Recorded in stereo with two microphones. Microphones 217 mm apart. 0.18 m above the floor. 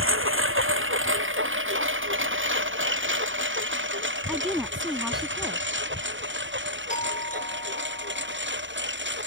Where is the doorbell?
35° left (ahead or behind).